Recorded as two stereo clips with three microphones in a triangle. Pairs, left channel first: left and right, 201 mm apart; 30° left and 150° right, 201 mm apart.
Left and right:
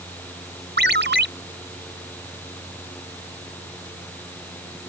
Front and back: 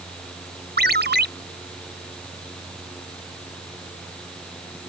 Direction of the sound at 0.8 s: 115° right.